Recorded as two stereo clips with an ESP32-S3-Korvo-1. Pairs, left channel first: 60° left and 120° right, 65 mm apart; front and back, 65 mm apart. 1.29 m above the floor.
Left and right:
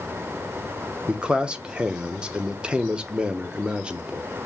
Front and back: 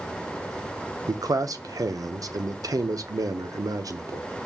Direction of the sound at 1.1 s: 165° left.